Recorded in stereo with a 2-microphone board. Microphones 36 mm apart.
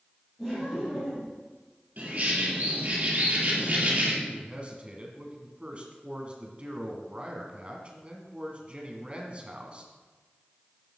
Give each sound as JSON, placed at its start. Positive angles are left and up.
{"t": 0.4, "sound": "laughter", "side_deg": 10, "distance_m": 4.5}
{"t": 2.0, "sound": "a bird", "side_deg": -40, "distance_m": 4.5}
{"t": 4.2, "sound": "a man speaking", "side_deg": -35, "distance_m": 2.0}